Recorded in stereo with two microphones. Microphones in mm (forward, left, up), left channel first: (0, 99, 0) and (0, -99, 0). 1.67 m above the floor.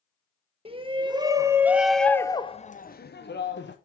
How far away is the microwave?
No microwave in this recording.